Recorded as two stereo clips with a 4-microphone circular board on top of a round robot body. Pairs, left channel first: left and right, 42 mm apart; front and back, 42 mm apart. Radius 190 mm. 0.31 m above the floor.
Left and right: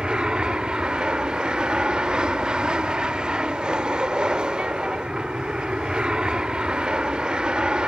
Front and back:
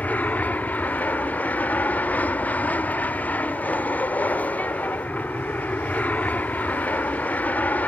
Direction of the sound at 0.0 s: 30° right.